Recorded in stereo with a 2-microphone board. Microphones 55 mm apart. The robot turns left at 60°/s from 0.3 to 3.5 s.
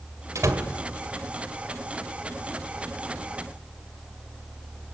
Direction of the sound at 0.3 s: 70° right (ahead or behind).